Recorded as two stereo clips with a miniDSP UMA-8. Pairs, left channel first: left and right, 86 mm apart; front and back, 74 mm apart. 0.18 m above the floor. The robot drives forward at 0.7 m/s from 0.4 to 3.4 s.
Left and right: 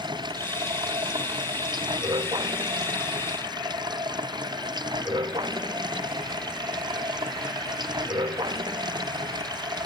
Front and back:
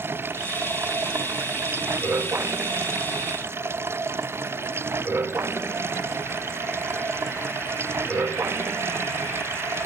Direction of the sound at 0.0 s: 120° right.